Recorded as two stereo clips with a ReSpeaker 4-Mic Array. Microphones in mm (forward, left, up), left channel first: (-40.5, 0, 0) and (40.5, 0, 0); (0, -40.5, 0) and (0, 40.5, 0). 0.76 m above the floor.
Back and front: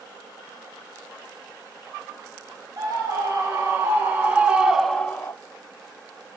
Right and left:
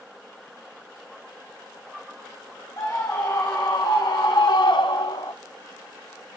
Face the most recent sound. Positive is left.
turn(degrees=-125)